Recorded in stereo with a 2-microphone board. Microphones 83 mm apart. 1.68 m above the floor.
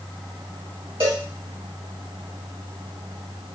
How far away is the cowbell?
About 2.0 m.